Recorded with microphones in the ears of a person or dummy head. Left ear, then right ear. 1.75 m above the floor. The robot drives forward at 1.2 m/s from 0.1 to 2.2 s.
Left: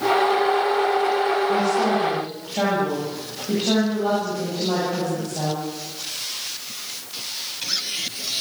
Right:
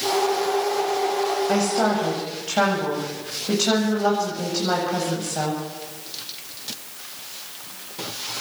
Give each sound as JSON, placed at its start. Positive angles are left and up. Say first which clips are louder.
{"t": 1.5, "sound": "a woman speaking", "louder": "left 1 dB", "side_deg": -60, "distance_m": 8.5}